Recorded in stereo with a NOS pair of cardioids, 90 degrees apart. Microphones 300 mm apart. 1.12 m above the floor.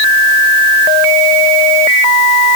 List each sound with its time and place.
Only background noise.